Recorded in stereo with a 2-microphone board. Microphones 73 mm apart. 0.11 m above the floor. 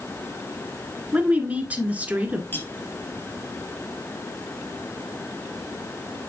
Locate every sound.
1.1 s a woman speaking: 20° right (ahead or behind), 1.6 m
2.5 s cutlery clinking: 30° left (ahead or behind), 1.6 m